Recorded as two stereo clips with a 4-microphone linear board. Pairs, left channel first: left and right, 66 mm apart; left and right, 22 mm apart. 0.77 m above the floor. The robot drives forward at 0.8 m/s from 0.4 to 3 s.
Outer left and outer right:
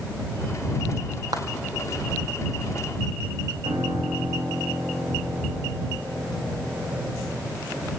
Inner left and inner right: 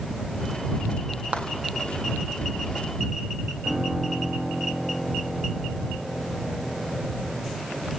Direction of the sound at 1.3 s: 60° right (ahead or behind).